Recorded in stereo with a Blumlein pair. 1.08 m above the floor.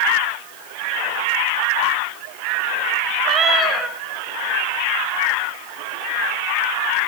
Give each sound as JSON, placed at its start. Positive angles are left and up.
{"t": 3.2, "sound": "a cat meowing", "azimuth_deg": -15, "distance_m": 1.4}